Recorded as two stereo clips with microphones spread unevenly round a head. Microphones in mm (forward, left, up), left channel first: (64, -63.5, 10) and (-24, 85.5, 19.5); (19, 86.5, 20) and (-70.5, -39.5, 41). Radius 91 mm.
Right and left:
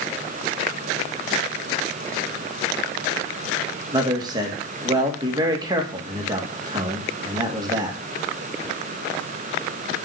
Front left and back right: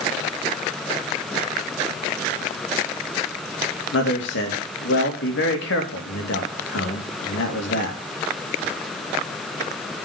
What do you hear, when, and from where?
3.9 s a man speaking: 55° left, 2 m